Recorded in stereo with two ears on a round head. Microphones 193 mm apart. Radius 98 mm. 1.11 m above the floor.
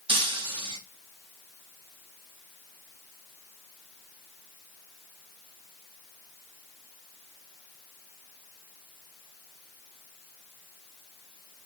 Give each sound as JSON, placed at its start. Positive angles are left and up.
{"t": 0.1, "sound": "breaking glass", "side_deg": -25, "distance_m": 4.5}